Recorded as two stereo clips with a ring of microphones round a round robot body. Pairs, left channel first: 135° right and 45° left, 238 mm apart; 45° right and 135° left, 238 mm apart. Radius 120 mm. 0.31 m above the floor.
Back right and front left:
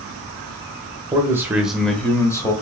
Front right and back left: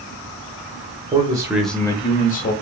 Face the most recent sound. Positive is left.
turn(degrees=-65)